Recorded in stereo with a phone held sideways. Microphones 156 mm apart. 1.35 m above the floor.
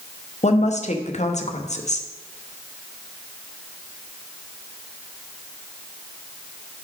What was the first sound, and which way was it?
A woman speaking, 45° left (ahead or behind).